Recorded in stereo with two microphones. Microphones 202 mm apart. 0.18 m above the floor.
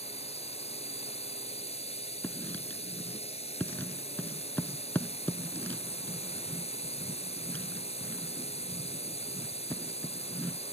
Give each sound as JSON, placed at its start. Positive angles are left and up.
{"t": 0.0, "sound": "a drone", "side_deg": 30}
{"t": 2.2, "sound": "writing", "side_deg": 10}